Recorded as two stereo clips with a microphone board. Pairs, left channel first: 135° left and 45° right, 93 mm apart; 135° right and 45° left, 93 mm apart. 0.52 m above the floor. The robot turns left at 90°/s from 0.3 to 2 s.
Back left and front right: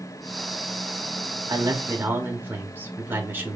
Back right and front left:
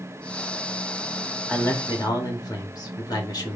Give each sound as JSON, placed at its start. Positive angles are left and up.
{"t": 1.5, "sound": "a man speaking", "azimuth_deg": -60, "distance_m": 1.3}